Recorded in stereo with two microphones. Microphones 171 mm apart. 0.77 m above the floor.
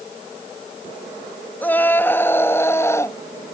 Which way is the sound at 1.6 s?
10° left (ahead or behind).